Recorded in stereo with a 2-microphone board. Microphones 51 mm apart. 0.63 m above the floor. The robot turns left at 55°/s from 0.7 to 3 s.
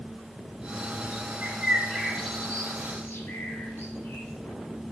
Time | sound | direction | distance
1.4 | a bird | 35° right (ahead or behind) | 1.3 m